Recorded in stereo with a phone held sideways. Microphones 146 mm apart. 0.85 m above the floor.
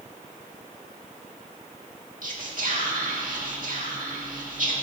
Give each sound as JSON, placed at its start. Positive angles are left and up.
{"t": 2.2, "sound": "whispering", "side_deg": -65, "distance_m": 2.0}